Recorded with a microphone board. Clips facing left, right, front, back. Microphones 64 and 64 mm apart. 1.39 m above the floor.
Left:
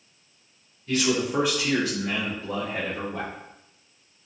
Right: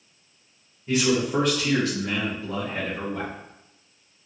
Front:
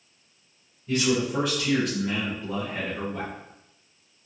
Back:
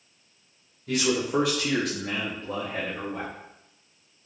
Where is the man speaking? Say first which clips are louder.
Right 2 dB, front 1 dB; 160° right, 0.7 m; by 3.3 s 125° left, 1.4 m.